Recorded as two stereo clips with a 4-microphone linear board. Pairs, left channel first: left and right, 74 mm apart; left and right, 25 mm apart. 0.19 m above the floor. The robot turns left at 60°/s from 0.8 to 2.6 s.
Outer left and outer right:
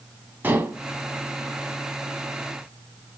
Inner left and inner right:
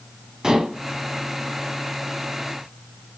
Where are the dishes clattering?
25° right (ahead or behind), 0.7 m.